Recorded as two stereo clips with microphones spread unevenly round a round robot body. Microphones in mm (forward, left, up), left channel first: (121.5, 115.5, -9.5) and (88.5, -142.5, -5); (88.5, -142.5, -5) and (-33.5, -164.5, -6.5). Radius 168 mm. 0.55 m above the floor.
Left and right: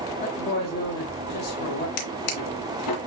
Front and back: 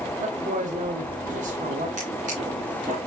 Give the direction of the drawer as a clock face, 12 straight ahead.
8 o'clock.